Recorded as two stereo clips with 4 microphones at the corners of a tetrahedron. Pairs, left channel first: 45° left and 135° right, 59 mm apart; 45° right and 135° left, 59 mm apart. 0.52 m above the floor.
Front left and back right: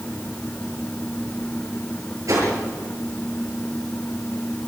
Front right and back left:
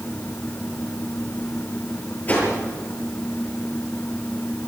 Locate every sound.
2.3 s a whoosh: 110° right, 8 m